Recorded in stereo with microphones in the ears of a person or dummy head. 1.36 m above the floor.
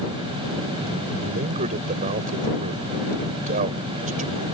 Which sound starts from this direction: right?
A man speaking, at 1.2 s.